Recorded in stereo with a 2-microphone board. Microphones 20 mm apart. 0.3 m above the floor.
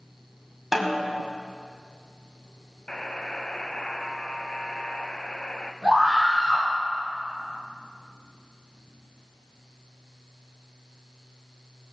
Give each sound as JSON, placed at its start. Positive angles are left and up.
{"t": 0.7, "sound": "a snare drum", "side_deg": -15, "distance_m": 2.0}
{"t": 2.9, "sound": "a buzzer", "side_deg": 45, "distance_m": 0.7}
{"t": 5.8, "sound": "a scream", "side_deg": -55, "distance_m": 6.0}